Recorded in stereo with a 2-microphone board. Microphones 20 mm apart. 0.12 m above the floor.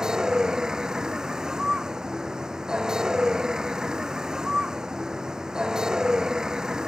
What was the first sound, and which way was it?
A vehicle, 35° right (ahead or behind).